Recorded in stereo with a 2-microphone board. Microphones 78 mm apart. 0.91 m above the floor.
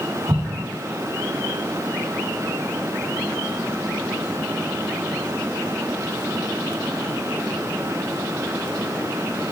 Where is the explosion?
50° right (ahead or behind), 1.5 m.